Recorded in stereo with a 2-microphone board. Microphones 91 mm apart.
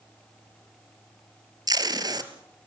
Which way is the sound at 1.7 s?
50° right (ahead or behind).